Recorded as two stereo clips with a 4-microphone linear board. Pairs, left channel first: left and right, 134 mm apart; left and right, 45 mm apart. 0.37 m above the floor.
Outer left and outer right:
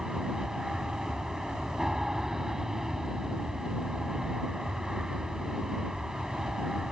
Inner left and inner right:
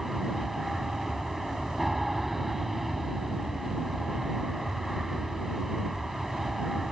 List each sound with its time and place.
0.0 s an aircraft: 5° right (ahead or behind)